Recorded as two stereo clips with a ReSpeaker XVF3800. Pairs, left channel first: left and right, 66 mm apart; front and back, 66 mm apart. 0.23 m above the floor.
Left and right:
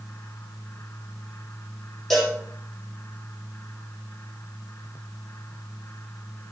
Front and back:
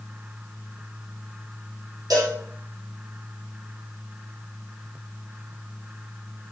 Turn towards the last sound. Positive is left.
turn(degrees=175)